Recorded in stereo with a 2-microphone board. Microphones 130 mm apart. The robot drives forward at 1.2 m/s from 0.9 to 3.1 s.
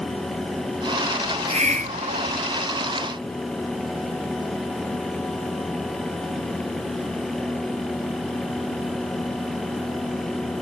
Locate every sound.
1.2 s a hiss: 40° right (ahead or behind), 1.4 m; by 2.4 s 65° right (ahead or behind), 1.0 m